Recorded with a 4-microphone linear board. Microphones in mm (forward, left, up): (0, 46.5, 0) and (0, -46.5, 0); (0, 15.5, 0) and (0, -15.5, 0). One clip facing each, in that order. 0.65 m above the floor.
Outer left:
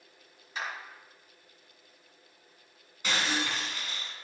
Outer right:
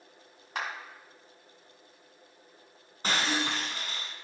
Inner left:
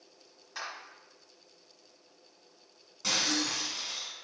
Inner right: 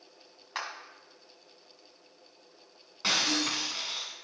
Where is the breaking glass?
40° right (ahead or behind), 1.3 m.